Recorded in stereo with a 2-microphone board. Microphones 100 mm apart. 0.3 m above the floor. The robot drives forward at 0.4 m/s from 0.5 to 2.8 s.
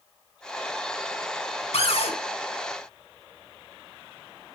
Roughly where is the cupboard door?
Left.